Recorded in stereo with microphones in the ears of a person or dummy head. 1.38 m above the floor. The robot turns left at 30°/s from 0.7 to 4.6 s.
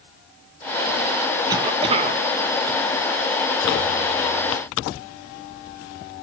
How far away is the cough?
About 1.4 m.